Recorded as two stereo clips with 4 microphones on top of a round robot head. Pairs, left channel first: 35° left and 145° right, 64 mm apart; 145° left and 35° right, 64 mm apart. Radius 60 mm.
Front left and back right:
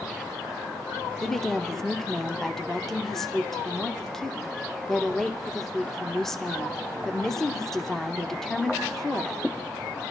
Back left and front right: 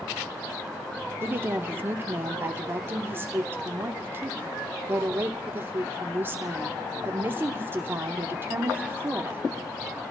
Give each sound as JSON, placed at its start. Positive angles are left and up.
{"t": 1.2, "sound": "a woman speaking", "azimuth_deg": -45, "distance_m": 0.8}